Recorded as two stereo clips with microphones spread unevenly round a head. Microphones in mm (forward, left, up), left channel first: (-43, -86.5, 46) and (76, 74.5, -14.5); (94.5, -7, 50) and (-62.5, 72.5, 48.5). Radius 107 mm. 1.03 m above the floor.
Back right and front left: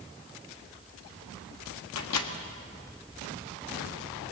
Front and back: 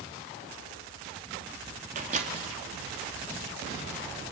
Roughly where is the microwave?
Behind right.